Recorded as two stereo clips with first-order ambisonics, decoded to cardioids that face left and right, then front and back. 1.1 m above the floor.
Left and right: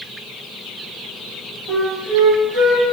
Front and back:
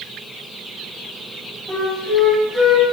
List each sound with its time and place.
1.7 s a flute: 120° right, 1.1 m